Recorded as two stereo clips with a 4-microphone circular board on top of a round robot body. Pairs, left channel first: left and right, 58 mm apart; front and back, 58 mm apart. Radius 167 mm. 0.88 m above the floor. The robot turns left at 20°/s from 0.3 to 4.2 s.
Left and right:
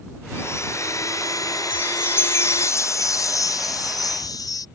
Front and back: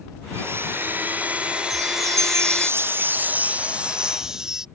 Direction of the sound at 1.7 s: 150° left.